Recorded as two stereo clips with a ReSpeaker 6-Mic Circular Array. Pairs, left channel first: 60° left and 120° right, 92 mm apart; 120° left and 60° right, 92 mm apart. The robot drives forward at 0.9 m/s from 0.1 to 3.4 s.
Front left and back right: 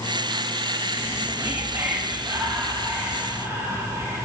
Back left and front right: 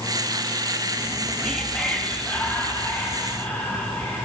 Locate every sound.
1.0 s whispering: 145° right, 0.7 m; by 4.2 s 175° right, 2.5 m